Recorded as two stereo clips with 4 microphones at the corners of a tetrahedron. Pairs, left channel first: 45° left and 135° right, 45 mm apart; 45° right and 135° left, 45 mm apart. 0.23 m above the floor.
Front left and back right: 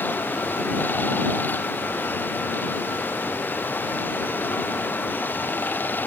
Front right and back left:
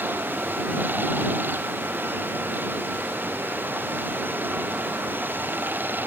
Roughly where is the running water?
Left.